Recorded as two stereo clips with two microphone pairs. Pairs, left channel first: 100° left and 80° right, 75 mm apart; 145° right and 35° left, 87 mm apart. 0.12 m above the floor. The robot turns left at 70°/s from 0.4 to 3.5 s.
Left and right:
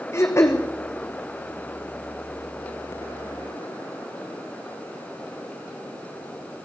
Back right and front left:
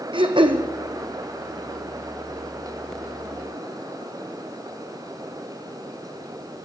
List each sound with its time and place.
0.1 s throat clearing: 50° left, 1.7 m; by 0.6 s 35° left, 1.7 m